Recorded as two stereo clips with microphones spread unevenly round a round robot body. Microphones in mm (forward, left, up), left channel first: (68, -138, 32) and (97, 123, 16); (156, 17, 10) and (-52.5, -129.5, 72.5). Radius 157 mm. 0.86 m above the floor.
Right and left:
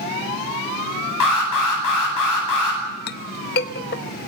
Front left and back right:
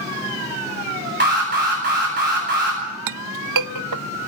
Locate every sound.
1.2 s an alarm: 95° right, 9.5 m
3.1 s a clink: 155° right, 0.6 m